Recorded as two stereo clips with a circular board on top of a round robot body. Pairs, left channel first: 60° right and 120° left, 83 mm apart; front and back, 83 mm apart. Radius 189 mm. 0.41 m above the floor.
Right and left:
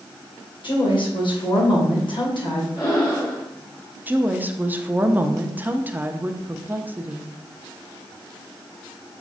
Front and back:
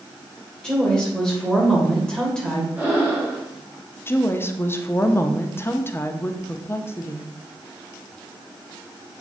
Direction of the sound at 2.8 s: 110° right.